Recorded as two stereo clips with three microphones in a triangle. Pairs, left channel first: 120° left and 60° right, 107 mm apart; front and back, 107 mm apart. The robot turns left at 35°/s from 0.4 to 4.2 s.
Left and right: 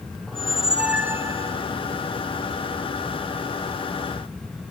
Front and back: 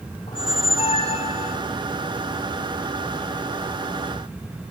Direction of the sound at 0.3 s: 35° left.